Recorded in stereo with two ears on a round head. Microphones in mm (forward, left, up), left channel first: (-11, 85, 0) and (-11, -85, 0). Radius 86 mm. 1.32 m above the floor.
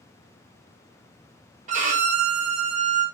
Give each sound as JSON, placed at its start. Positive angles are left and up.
{"t": 1.7, "sound": "a violin", "side_deg": -40, "distance_m": 0.7}